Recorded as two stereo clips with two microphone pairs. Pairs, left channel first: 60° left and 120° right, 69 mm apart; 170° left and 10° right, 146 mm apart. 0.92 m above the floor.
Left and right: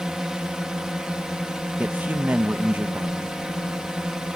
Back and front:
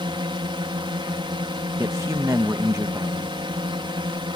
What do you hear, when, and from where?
0.0 s a drone: 45° right
1.8 s a man speaking: 70° right